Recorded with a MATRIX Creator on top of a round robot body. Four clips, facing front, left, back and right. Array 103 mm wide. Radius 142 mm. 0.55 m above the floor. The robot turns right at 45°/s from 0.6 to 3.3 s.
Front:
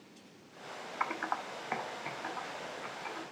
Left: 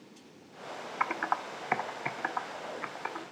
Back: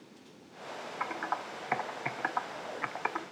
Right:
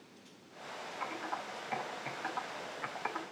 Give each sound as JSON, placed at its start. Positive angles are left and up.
{"t": 1.0, "sound": "typing on a keyboard", "azimuth_deg": 80, "distance_m": 1.4}